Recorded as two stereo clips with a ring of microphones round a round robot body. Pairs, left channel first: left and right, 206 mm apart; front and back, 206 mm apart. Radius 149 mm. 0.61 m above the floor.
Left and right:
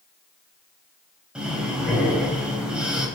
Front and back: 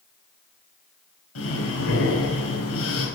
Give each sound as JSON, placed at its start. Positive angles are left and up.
{"t": 1.4, "sound": "breathing", "azimuth_deg": -5, "distance_m": 4.5}